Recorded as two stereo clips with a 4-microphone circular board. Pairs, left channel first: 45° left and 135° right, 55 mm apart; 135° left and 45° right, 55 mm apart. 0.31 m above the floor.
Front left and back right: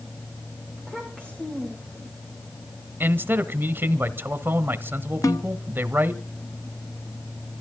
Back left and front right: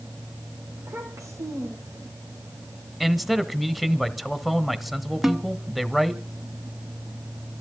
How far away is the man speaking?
About 1.4 m.